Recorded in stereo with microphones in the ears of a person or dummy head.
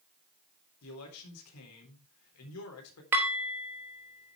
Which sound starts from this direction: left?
A man speaking, at 0.8 s.